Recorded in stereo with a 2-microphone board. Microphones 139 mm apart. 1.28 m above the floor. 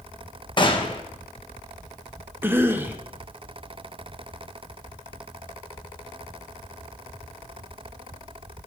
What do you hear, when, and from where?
0.6 s a gunshot: 35° left (ahead or behind), 1.2 m
2.4 s a cough: 15° right (ahead or behind), 1.0 m